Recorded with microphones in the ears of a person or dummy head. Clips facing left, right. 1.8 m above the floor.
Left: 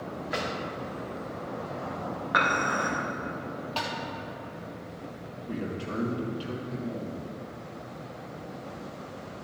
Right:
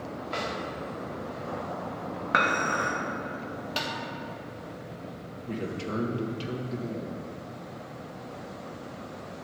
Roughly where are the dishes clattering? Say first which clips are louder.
Right 1 dB; right.